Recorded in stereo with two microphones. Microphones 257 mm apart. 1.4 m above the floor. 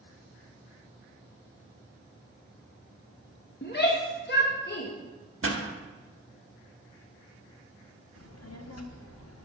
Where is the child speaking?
70° left (ahead or behind), 0.8 m.